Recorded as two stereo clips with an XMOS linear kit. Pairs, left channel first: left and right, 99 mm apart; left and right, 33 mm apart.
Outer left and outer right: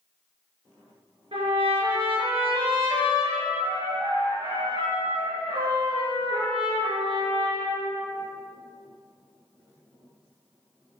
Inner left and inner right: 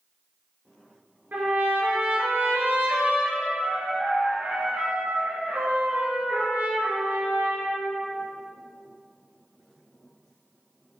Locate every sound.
1.3 s a trumpet: 65° right (ahead or behind), 3 m